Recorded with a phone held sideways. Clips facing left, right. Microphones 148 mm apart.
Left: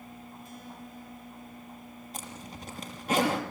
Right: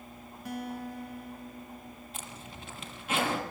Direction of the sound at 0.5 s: 80° right.